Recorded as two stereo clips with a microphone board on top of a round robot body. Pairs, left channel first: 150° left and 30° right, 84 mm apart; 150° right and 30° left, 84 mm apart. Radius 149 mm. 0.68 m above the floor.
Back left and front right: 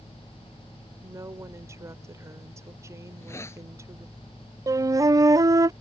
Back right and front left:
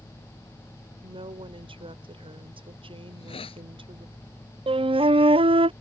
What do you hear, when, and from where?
1.0 s a woman speaking: 25° left
3.1 s a hiss: 150° right
4.7 s a flute: 20° left